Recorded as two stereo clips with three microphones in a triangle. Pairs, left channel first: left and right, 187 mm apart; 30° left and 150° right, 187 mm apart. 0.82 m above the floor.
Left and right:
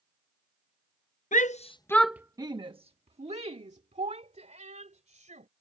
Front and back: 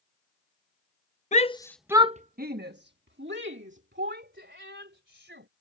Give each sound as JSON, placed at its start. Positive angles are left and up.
{"t": 1.3, "sound": "a shout", "azimuth_deg": 65}